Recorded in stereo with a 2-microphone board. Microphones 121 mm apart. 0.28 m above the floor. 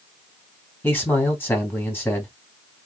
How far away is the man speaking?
About 2 m.